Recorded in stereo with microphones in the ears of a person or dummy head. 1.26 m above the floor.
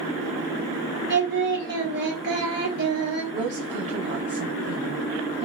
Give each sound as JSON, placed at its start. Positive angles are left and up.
{"t": 1.1, "sound": "singing", "side_deg": -50, "distance_m": 1.2}
{"t": 3.3, "sound": "a woman speaking", "side_deg": -40, "distance_m": 0.5}